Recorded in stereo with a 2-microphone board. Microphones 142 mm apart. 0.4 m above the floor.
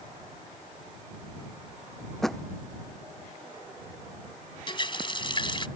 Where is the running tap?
35° left (ahead or behind).